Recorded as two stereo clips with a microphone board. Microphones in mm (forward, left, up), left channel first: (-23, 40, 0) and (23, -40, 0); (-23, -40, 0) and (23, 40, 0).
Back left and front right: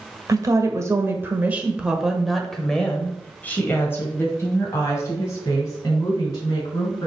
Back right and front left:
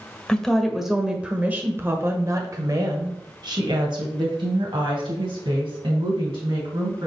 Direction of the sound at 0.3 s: 40° right.